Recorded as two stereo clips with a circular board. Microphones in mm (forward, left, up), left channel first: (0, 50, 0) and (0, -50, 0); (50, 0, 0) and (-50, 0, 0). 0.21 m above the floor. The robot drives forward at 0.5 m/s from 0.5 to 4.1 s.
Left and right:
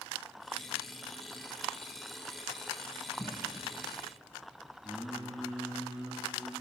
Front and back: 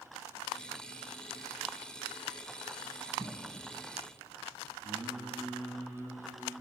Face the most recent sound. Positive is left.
turn(degrees=-165)